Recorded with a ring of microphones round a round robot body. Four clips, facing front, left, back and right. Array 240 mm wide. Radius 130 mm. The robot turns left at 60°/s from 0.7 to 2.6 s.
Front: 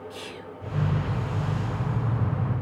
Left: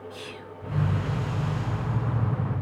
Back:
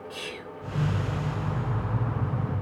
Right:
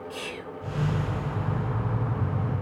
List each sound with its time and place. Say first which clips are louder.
0.1 s whispering: right 4 dB, even; 105° right, 0.8 m